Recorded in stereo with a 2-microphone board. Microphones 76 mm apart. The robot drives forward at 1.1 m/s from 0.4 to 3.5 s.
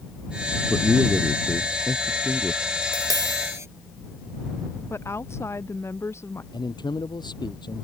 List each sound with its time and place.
0.7 s a man speaking: centre (ahead or behind)
2.8 s tapping: 60° right (ahead or behind); by 3.7 s 40° right (ahead or behind)
4.9 s a woman speaking: 35° left (ahead or behind)
6.5 s a man speaking: 75° left (ahead or behind)